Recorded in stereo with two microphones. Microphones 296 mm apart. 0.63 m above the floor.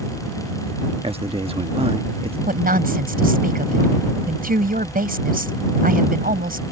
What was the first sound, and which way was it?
A man speaking, 20° right (ahead or behind).